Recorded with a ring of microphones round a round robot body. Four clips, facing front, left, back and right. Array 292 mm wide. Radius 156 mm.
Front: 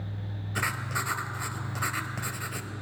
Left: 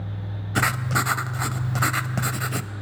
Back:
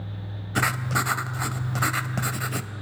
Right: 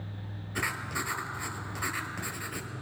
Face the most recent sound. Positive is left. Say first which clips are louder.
# left 10 dB, back 7 dB
turn(degrees=120)